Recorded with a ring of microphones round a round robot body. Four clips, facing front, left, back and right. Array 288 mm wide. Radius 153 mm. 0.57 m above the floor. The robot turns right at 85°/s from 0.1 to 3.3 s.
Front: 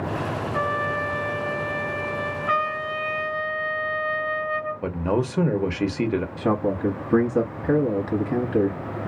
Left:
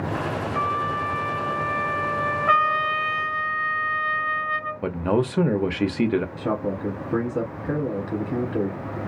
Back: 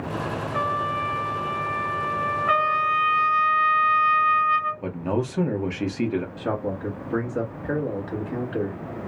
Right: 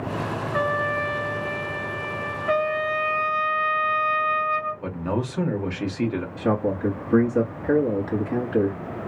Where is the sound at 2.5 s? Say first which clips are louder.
Left 2 dB, back 3 dB; 110° left, 1.4 m; by 4.8 s straight behind, 1.4 m.